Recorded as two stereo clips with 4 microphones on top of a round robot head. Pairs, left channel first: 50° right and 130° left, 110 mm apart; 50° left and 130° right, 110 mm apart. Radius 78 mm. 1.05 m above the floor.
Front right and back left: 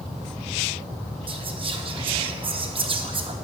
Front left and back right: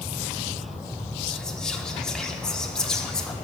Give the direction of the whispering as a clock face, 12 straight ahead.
8 o'clock.